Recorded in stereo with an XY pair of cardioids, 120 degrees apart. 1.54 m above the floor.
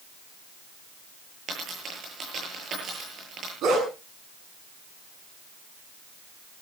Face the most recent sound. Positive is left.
turn(degrees=-65)